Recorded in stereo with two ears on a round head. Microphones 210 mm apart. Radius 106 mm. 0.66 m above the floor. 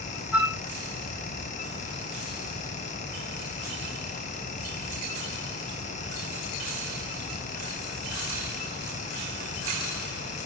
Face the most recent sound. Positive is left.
turn(degrees=85)